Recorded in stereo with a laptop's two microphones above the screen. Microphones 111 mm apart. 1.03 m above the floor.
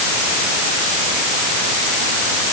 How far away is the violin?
I don't hear a violin.